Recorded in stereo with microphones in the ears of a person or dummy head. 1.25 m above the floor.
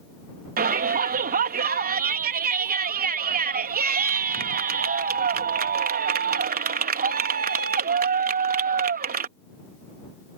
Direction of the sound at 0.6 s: 45° right (ahead or behind).